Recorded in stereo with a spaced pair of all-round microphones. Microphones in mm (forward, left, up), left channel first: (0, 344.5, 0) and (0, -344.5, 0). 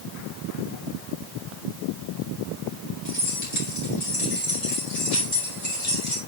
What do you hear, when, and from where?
3.0 s keys jangling: 40° left (ahead or behind), 4 m; by 6.2 s 60° left (ahead or behind), 3 m